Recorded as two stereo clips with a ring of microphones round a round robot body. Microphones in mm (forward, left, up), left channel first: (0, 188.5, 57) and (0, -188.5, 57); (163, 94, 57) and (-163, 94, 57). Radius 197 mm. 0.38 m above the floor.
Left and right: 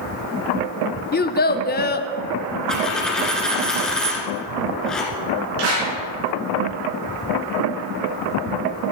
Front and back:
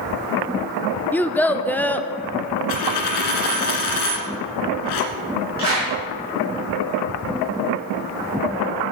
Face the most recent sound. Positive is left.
turn(degrees=-65)